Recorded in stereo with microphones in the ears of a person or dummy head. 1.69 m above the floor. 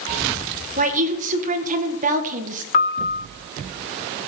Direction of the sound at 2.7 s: 40° left (ahead or behind).